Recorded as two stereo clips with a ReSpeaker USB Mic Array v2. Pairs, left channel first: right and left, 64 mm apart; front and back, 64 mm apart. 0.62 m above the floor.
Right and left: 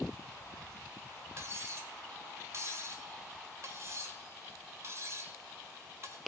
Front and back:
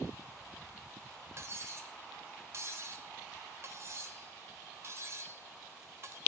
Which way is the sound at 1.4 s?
135° left.